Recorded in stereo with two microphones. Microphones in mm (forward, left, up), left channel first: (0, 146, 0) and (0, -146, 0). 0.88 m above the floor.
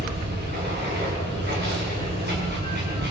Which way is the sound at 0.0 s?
35° right (ahead or behind).